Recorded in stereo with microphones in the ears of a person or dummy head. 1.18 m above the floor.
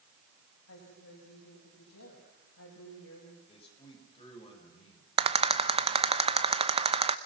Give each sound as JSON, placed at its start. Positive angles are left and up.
{"t": 0.7, "sound": "a woman speaking", "side_deg": 80, "distance_m": 6.5}
{"t": 3.5, "sound": "a man speaking", "side_deg": 35, "distance_m": 6.0}
{"t": 5.2, "sound": "a rattle", "side_deg": -35, "distance_m": 0.8}